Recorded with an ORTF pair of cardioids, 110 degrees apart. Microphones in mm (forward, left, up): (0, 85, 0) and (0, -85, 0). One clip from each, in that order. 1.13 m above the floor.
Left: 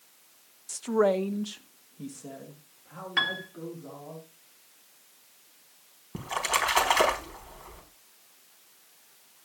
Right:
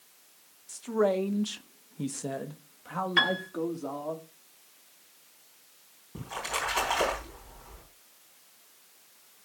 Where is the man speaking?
35° left, 0.9 m; by 4.2 s 75° right, 2.5 m.